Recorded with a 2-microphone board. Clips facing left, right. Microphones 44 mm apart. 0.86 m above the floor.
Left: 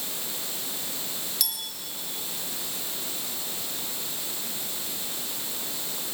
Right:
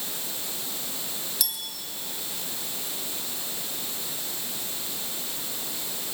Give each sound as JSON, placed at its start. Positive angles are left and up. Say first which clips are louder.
{"t": 1.4, "sound": "a clink", "louder": "even", "side_deg": -5, "distance_m": 3.5}